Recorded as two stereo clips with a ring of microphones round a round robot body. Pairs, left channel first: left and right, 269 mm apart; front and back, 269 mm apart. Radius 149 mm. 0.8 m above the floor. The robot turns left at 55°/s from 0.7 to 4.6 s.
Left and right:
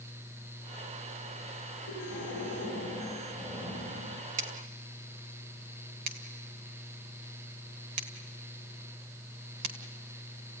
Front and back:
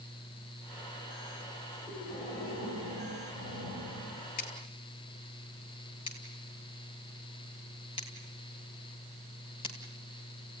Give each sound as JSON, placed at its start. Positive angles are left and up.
{"t": 1.9, "sound": "breathing", "azimuth_deg": 75, "distance_m": 6.5}
{"t": 4.4, "sound": "scissors", "azimuth_deg": -60, "distance_m": 2.0}